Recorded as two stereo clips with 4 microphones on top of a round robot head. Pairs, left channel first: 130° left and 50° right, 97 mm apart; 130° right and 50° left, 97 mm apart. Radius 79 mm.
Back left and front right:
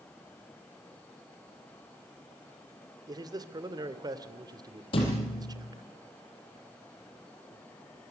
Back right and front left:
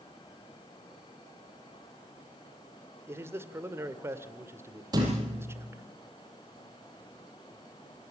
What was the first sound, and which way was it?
A man speaking, 10° right.